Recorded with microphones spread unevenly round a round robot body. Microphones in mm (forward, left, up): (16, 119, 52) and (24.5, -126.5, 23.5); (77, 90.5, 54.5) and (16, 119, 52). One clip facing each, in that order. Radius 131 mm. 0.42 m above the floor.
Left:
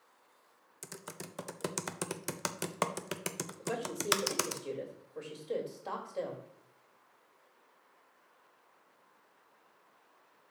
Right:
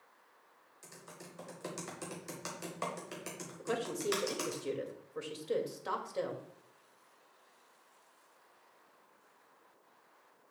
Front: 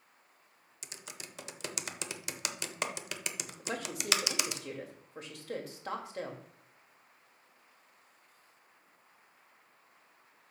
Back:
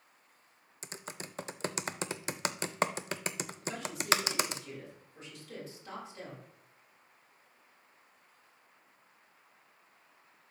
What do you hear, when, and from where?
0.8 s typing on a keyboard: 105° left, 0.7 m
3.6 s a woman speaking: 30° right, 1.9 m